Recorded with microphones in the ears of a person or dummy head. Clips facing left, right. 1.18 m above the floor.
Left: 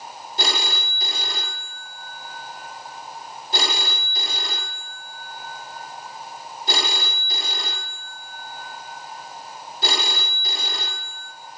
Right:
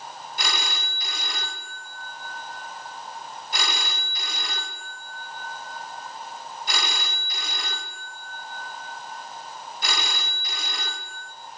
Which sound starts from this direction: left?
A phone ringing, at 0.4 s.